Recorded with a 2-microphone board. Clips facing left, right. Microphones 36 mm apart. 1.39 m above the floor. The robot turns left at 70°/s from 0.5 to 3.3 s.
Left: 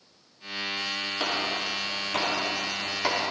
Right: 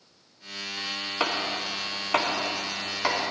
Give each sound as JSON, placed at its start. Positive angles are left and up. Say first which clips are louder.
{"t": 1.2, "sound": "chopping", "louder": "right 2 dB", "side_deg": -40, "distance_m": 3.5}